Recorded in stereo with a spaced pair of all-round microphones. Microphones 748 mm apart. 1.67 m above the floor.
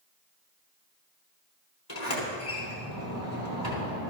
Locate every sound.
1.9 s a sliding door: 30° left (ahead or behind), 3.5 m